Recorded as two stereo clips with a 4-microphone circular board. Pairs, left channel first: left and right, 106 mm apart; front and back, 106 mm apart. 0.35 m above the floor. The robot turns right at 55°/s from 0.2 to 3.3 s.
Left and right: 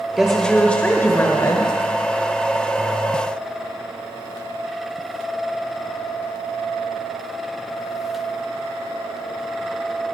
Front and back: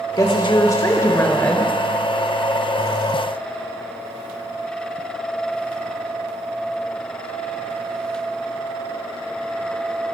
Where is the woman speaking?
10° right, 1.1 m; by 1.7 s 75° left, 1.1 m.